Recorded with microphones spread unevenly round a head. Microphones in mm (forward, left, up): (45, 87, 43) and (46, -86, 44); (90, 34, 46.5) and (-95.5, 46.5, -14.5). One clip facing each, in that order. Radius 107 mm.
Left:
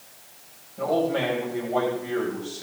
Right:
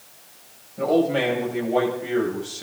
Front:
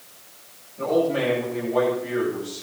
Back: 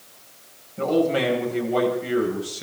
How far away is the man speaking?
About 9.5 m.